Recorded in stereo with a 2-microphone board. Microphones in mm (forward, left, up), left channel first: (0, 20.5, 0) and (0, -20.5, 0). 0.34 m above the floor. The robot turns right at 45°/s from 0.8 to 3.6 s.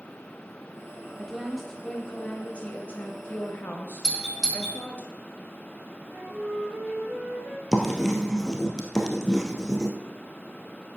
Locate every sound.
1.2 s a woman speaking: 15° right, 1.5 m; by 5.0 s 95° left, 1.5 m
4.0 s a doorbell: centre (ahead or behind), 4 m
6.1 s a flute: 60° right (ahead or behind), 6.5 m
7.7 s writing: 10° left (ahead or behind), 1.7 m